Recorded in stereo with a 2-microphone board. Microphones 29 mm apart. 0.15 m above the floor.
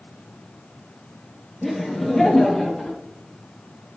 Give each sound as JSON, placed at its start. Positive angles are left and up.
{"t": 1.6, "sound": "laughter", "side_deg": 5, "distance_m": 3.5}